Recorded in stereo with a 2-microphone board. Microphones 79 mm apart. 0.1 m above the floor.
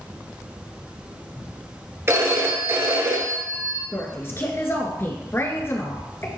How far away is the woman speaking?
About 1.3 m.